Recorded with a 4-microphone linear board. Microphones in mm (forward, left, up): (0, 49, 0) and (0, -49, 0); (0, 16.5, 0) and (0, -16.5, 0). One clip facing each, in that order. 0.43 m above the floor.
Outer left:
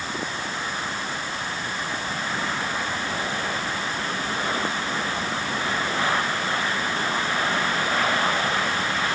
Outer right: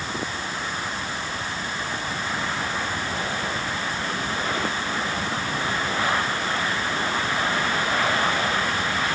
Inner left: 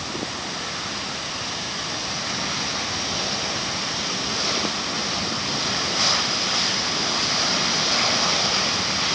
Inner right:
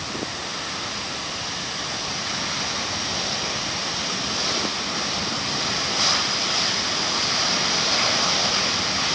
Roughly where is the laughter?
No laughter in this recording.